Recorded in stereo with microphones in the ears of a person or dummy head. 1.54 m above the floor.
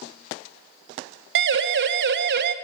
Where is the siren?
75° right (ahead or behind), 2.5 m; by 2.5 s 60° right (ahead or behind), 1.4 m.